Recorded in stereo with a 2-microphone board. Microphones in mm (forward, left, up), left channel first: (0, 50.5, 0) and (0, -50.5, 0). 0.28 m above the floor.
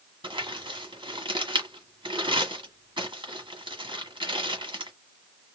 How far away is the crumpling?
About 1.4 m.